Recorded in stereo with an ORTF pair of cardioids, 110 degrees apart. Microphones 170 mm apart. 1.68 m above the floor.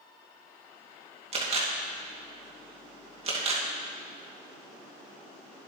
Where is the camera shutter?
35° right, 2.5 m.